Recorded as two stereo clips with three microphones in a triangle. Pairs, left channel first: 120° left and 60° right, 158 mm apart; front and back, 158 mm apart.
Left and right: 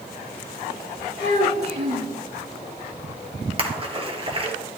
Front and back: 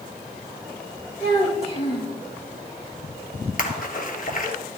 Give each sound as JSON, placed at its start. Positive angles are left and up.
{"t": 1.2, "sound": "a child speaking", "azimuth_deg": -50, "distance_m": 4.0}
{"t": 3.6, "sound": "a splash", "azimuth_deg": -10, "distance_m": 1.5}